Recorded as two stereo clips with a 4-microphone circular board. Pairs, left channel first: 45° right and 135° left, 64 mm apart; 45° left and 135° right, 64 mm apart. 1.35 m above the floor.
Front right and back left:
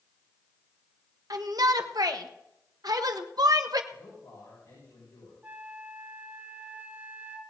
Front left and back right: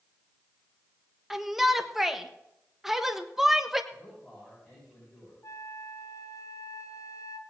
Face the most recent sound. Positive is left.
turn(degrees=70)